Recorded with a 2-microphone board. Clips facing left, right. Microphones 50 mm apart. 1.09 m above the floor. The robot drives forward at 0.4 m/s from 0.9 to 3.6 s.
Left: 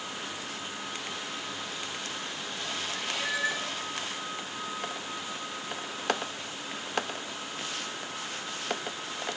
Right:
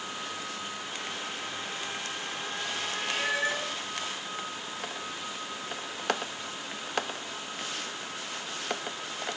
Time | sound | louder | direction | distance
2.9 | a cat meowing | right 3 dB | 50° right (ahead or behind) | 1.1 m